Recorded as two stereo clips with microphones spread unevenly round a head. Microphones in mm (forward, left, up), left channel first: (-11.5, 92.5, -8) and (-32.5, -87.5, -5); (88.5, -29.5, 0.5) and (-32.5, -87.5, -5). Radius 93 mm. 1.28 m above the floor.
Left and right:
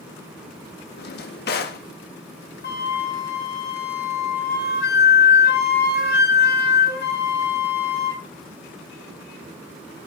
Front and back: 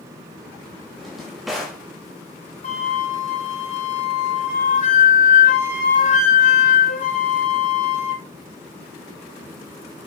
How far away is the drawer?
About 1.2 m.